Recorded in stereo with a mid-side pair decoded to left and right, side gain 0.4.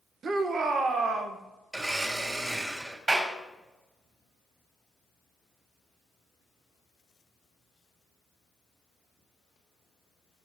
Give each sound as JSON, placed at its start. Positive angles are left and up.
{"t": 0.2, "sound": "a shout", "azimuth_deg": -60, "distance_m": 1.6}
{"t": 1.7, "sound": "a blender", "azimuth_deg": -25, "distance_m": 3.5}
{"t": 3.1, "sound": "a clap", "azimuth_deg": -35, "distance_m": 5.5}